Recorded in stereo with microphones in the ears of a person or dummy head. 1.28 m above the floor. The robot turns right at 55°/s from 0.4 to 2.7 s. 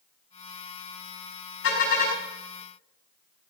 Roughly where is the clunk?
No clunk in this recording.